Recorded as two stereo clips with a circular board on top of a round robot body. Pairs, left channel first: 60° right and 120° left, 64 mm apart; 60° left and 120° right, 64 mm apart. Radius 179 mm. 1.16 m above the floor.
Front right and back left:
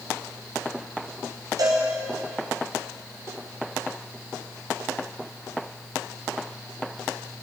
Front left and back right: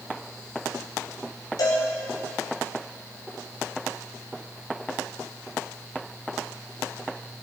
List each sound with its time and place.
1.6 s a cowbell: 85° left, 1.2 m